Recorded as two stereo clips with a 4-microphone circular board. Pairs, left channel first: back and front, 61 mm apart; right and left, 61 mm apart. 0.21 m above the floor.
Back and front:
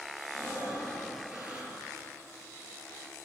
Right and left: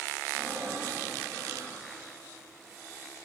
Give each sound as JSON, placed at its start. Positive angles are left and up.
{"t": 0.3, "sound": "breathing", "azimuth_deg": 70, "distance_m": 3.0}